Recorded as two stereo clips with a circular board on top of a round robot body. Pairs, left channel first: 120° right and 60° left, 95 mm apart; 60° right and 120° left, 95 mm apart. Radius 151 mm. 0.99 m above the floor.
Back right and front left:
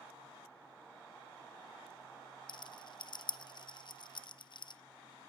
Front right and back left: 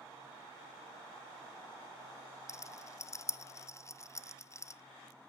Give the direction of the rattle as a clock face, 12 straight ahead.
4 o'clock.